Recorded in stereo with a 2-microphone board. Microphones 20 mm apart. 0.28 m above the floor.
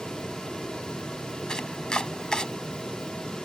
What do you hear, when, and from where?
1.5 s chopping: 40° left (ahead or behind)